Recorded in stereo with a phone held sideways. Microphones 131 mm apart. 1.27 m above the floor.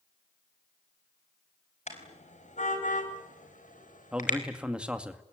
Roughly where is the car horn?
Left.